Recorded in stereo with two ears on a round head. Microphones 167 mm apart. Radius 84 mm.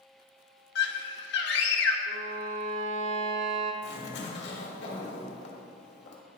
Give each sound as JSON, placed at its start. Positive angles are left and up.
{"t": 0.8, "sound": "a scream", "side_deg": 60, "distance_m": 1.3}
{"t": 2.1, "sound": "a violin", "side_deg": -80, "distance_m": 1.1}
{"t": 3.8, "sound": "a zipper", "side_deg": 60, "distance_m": 1.7}